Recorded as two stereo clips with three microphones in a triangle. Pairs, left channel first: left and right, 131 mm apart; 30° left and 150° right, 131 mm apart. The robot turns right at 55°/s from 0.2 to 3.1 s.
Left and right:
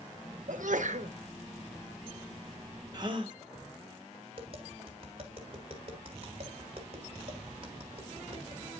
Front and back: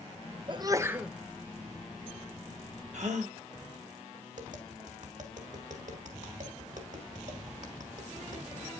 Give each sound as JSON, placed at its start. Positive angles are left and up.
{"t": 0.5, "sound": "a sneeze", "azimuth_deg": -100, "distance_m": 0.8}
{"t": 2.9, "sound": "a gasp", "azimuth_deg": -145, "distance_m": 1.3}
{"t": 4.3, "sound": "tapping", "azimuth_deg": -135, "distance_m": 2.5}